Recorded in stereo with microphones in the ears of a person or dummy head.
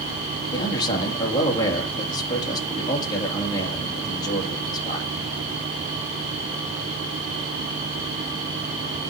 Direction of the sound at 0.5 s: 25° left (ahead or behind).